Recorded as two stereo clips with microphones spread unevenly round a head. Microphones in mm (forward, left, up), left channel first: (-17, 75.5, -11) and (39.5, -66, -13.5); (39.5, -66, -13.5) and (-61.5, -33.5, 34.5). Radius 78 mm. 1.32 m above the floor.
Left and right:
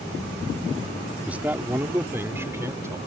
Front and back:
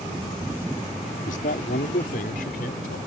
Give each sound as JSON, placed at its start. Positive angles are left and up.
{"t": 1.2, "sound": "a man speaking", "azimuth_deg": 15}